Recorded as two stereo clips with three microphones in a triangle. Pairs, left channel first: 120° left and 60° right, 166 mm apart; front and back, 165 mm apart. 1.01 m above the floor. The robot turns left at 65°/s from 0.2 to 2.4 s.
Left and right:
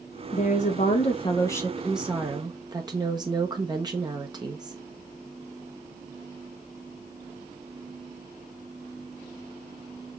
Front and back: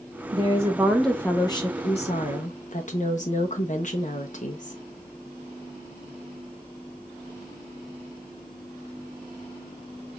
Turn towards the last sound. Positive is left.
turn(degrees=-5)